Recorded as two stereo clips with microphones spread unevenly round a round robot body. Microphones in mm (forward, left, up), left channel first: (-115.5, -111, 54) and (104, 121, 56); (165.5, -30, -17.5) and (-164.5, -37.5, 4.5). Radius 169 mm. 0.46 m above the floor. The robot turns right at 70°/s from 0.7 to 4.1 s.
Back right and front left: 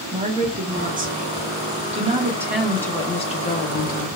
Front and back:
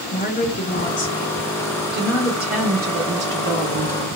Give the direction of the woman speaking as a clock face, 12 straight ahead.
12 o'clock.